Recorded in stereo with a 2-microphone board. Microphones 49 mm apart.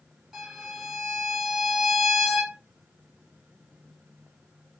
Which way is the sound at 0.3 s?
Centre (ahead or behind).